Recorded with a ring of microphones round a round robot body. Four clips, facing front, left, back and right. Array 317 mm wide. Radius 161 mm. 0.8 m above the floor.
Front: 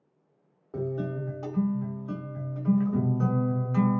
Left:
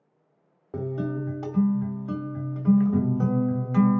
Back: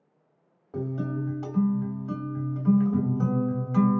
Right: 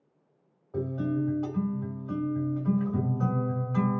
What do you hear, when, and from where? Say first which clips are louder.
0.7 s a guitar: even, even; 85° left, 1.4 m